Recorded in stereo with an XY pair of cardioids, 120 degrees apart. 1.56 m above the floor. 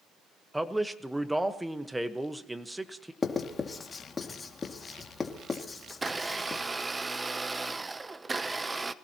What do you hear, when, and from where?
0.5 s a man speaking: 5° right, 1.3 m
3.2 s writing: 30° left, 2.5 m
5.9 s a blender: 15° right, 0.8 m